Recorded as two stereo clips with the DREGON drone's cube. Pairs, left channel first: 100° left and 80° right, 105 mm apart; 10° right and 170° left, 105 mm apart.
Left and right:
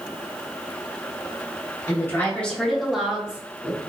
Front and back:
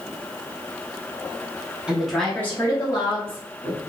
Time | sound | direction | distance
1.9 | a woman speaking | 95° left | 1.0 m